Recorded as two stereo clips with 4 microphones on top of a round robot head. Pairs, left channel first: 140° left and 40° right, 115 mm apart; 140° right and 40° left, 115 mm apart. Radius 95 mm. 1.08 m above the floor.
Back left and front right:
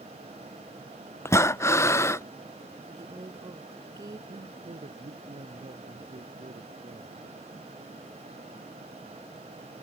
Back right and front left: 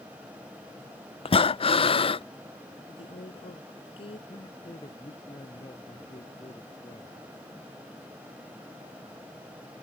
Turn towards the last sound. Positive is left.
turn(degrees=-85)